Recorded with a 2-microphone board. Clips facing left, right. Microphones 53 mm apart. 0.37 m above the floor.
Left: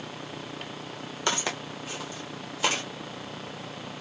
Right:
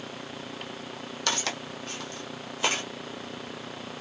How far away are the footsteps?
About 1.0 m.